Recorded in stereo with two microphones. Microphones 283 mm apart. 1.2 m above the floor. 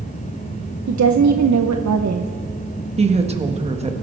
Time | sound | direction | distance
0.9 | a woman speaking | 75° right (ahead or behind) | 0.7 m
3.0 | a woman speaking | 20° right (ahead or behind) | 1.4 m